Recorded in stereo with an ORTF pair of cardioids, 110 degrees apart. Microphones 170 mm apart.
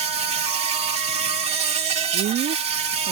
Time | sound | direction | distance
0.0 | an insect | 40° right | ?
2.1 | a woman speaking | 60° right | ?